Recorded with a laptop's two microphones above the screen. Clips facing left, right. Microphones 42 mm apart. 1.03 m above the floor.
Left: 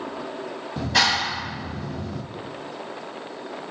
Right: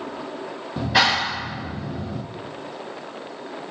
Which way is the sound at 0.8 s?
15° right (ahead or behind).